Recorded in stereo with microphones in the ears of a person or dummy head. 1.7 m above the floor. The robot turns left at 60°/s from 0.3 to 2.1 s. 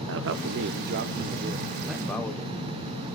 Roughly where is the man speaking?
Right.